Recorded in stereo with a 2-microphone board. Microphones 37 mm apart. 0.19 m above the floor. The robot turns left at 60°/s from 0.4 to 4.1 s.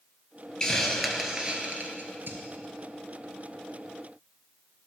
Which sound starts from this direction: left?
A hiss, at 0.6 s.